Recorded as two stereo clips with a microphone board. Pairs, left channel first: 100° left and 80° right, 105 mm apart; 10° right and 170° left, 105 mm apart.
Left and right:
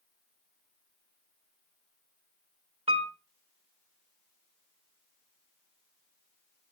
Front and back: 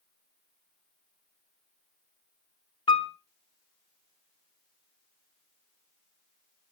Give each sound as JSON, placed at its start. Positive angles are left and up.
{"t": 2.9, "sound": "a piano", "azimuth_deg": -50, "distance_m": 1.2}